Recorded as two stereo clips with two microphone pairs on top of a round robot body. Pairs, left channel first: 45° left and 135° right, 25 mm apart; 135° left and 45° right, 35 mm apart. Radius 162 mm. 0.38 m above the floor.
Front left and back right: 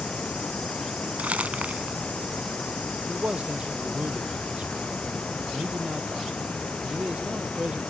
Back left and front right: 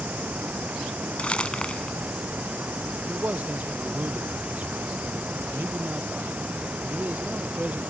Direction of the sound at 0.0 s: 5° left.